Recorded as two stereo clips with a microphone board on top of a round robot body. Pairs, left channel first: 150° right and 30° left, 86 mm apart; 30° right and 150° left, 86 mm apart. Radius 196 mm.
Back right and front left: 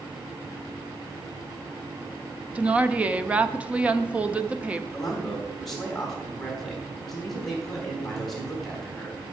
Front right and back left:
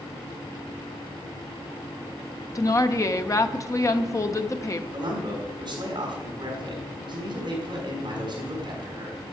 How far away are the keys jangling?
I don't hear keys jangling.